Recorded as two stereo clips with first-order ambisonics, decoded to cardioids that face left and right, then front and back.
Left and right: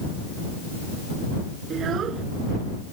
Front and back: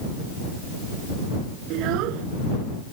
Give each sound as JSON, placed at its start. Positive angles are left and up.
{"t": 1.7, "sound": "a child speaking", "azimuth_deg": -150}